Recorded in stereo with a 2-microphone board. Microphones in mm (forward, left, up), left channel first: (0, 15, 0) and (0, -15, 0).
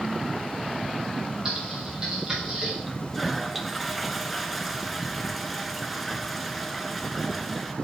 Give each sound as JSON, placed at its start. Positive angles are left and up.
{"t": 1.4, "sound": "typing on a keyboard", "side_deg": -15, "distance_m": 3.0}
{"t": 2.8, "sound": "a toilet flushing", "side_deg": 0, "distance_m": 0.7}